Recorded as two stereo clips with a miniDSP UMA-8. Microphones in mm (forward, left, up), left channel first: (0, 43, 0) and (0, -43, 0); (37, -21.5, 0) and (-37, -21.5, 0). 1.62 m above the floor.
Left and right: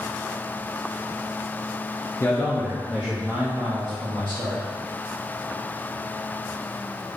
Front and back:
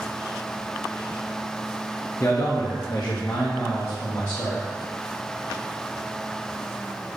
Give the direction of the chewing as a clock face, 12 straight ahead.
I don't hear chewing.